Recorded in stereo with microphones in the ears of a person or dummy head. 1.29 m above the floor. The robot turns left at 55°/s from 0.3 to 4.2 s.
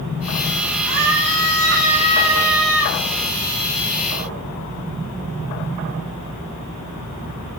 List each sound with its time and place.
0.8 s a scream: 85° right, 8.5 m; by 3.0 s 155° left, 8.5 m